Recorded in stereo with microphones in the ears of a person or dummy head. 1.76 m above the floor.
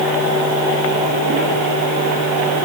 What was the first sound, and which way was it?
Only background noise.